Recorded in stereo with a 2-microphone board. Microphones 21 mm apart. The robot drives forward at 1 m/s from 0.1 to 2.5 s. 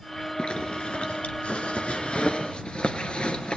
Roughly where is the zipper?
Left.